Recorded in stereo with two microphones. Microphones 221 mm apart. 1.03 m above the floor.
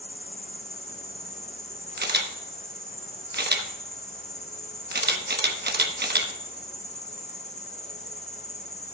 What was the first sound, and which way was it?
An insect, 30° left (ahead or behind).